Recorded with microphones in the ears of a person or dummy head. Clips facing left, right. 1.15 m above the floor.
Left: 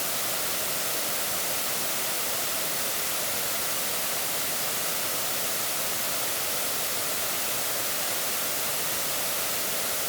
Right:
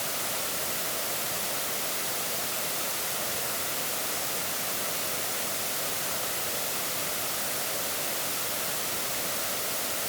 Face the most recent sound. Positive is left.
No sound to turn to.